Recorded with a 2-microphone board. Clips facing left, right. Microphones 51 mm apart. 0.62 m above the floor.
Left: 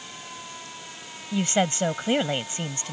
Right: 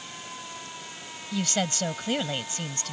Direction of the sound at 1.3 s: 25° left (ahead or behind).